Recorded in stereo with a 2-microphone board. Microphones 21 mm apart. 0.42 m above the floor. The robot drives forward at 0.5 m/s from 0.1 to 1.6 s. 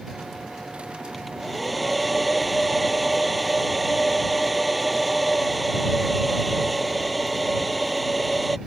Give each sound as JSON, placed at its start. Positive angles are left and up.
{"t": 1.1, "sound": "a hair dryer", "side_deg": 0}